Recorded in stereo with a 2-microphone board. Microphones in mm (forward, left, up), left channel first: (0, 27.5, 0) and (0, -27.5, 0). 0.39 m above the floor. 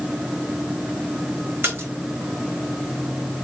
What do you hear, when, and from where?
1.6 s a splash: 45° right (ahead or behind), 1.3 m